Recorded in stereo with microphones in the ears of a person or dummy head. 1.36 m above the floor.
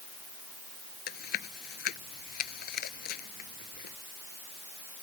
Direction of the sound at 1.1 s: 45° left (ahead or behind).